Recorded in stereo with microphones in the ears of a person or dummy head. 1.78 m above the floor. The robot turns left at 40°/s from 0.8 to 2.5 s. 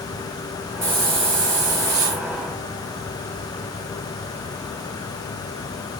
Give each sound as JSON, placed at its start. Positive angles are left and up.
{"t": 0.8, "sound": "a hiss", "azimuth_deg": -20, "distance_m": 2.0}